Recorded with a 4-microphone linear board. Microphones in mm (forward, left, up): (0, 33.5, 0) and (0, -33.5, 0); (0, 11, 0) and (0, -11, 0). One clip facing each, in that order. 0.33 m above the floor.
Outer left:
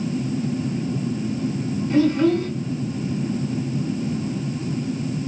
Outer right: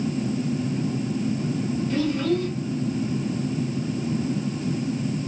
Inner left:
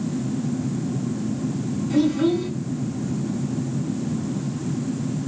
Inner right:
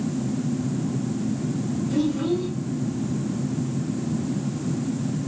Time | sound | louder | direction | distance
1.9 | a child speaking | outer left 7 dB, inner left 5 dB | 25° left (ahead or behind) | 2 m